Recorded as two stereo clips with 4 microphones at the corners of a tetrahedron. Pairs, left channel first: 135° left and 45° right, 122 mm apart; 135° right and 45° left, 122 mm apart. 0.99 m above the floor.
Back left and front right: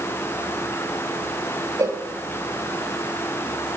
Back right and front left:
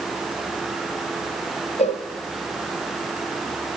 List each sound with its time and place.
1.8 s a cowbell: 110° right, 1.2 m